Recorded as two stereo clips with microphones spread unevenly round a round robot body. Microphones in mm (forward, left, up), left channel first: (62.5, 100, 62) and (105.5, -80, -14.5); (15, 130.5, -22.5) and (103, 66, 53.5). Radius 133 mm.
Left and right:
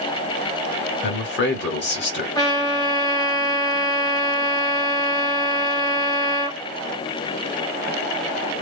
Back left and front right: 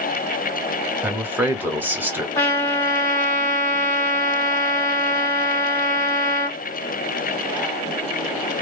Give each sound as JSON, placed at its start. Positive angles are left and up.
{"t": 1.0, "sound": "a man speaking", "azimuth_deg": 90, "distance_m": 1.4}
{"t": 2.4, "sound": "a trumpet", "azimuth_deg": -170, "distance_m": 0.6}